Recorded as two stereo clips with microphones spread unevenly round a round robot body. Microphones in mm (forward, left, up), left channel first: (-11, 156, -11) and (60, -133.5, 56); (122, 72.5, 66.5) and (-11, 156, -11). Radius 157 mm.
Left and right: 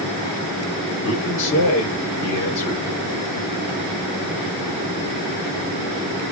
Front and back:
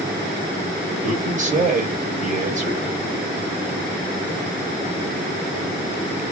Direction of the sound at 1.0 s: 145° left.